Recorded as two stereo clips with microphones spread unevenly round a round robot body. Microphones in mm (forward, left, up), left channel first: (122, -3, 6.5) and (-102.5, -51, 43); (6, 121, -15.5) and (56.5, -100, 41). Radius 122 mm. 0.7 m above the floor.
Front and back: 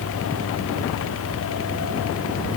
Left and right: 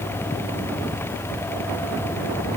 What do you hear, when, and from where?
Only background noise.